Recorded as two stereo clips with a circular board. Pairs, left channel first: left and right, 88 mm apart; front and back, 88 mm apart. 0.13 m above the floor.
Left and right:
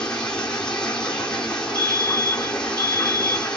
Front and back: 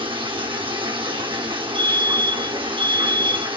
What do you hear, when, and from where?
0.0 s running water: 170° left, 1.0 m
1.8 s a fire alarm: 75° right, 3.5 m